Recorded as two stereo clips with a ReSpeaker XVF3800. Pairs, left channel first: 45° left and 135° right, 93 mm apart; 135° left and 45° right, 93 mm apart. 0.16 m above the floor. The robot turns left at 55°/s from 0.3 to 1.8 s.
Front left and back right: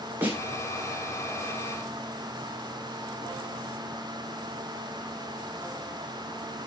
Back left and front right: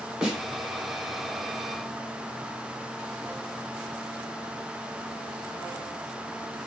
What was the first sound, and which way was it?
A snare drum, 115° right.